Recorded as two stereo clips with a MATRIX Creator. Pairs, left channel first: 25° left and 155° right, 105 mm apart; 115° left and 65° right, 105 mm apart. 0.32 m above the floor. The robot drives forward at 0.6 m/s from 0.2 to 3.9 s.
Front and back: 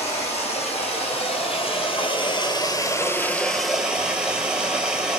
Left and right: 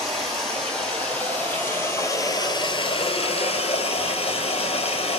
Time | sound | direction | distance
0.0 | running water | 25° left | 1.9 m